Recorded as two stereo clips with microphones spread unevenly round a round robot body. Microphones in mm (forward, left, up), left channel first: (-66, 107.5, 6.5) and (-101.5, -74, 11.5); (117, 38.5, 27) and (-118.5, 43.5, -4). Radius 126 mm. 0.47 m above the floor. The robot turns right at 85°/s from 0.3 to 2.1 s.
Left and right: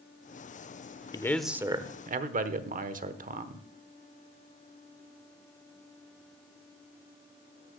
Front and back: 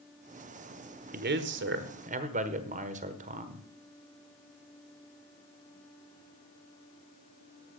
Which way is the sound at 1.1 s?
140° left.